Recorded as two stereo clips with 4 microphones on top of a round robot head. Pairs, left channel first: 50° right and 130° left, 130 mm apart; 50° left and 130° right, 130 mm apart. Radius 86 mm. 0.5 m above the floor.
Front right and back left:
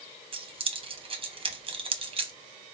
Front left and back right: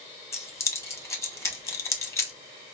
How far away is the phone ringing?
I don't hear a phone ringing.